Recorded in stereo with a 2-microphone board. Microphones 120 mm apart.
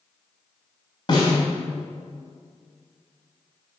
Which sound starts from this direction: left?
A snare drum, at 1.1 s.